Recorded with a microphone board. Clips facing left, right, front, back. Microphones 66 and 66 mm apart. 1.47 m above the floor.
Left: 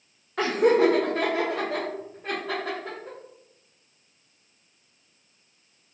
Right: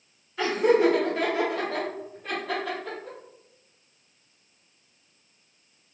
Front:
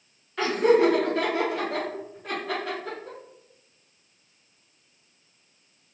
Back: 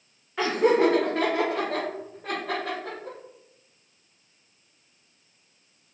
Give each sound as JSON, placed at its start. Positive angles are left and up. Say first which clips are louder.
{"t": 0.4, "sound": "laughter", "louder": "left 1 dB, front 1 dB", "azimuth_deg": 100, "distance_m": 0.6}